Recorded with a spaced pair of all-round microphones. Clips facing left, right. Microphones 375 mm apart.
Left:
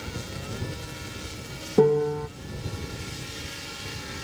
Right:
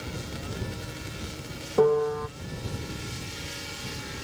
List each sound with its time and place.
1.8 s a piano: 35° left (ahead or behind)